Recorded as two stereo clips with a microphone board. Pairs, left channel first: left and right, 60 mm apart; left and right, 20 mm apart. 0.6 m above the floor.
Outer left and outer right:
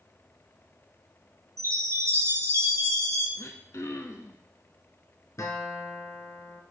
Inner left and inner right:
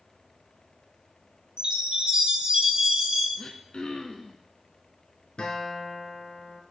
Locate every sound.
1.6 s a chime: 60° right (ahead or behind), 3.5 m
3.4 s throat clearing: 60° left (ahead or behind), 0.9 m
5.4 s a guitar: 65° left (ahead or behind), 1.5 m